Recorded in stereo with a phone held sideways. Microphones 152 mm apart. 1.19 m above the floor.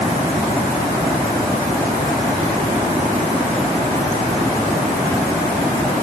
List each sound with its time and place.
Only background noise.